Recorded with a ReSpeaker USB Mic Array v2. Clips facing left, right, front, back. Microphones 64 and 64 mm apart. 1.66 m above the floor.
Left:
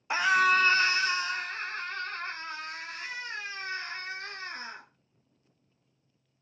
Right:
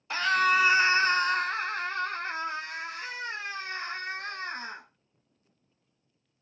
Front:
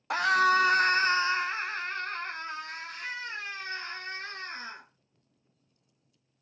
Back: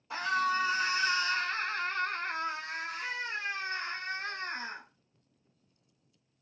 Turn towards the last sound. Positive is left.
turn(degrees=-110)